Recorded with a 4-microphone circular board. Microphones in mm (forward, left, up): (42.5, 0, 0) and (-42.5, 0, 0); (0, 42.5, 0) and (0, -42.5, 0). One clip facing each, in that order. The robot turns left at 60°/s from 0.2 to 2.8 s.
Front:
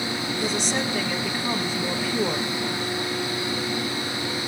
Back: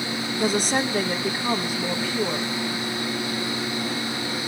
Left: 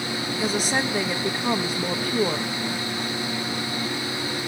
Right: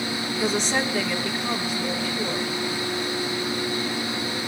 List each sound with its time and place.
0.4 s a woman speaking: 175° right, 0.8 m; by 2.5 s 55° left, 0.8 m